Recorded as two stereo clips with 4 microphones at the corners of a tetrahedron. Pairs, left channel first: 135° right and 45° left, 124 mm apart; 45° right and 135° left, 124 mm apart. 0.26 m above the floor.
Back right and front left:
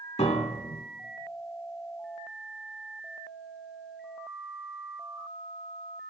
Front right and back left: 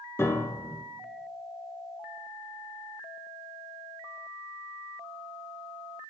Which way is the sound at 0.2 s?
115° right.